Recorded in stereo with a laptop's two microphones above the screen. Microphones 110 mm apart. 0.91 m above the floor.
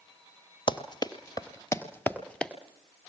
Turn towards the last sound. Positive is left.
turn(degrees=10)  # may be behind; listen again after turning